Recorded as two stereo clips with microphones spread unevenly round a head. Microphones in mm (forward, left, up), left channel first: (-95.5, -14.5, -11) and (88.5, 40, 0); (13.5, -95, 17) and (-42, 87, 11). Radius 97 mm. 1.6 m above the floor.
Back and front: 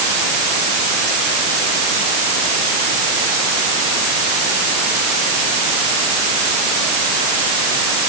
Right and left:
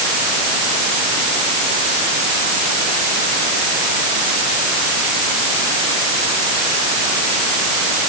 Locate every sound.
Only background noise.